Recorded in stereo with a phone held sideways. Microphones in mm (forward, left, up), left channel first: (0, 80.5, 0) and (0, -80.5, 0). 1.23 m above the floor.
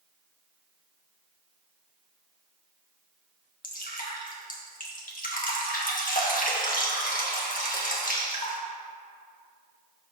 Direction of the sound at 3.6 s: 60° left (ahead or behind).